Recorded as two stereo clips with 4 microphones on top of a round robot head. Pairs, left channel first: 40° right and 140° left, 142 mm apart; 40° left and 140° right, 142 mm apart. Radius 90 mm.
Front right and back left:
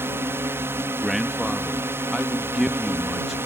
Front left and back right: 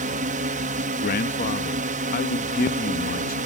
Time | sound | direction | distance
0.0 | a drone | 150° right | ?
1.0 | a man speaking | 50° left | ?